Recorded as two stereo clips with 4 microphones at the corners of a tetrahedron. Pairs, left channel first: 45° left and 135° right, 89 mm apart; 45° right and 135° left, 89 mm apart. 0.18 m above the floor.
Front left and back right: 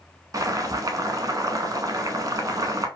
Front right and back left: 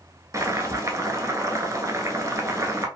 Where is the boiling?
Straight behind, 0.6 m.